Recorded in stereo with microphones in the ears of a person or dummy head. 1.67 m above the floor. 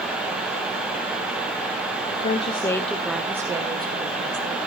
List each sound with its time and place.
2.1 s a woman speaking: 45° left (ahead or behind), 0.8 m; by 4.6 s 35° right (ahead or behind), 1.5 m